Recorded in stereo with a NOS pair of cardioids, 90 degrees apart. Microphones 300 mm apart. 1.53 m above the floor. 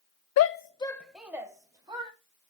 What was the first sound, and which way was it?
A shout, 60° left.